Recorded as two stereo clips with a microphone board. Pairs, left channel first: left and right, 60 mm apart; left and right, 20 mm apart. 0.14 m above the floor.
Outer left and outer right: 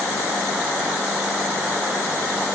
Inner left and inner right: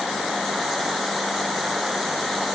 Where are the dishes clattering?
I don't hear dishes clattering.